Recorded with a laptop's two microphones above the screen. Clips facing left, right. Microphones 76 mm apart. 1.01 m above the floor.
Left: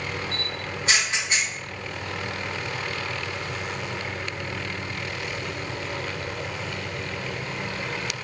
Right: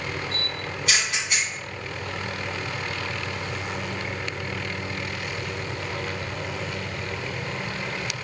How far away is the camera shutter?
About 1.2 m.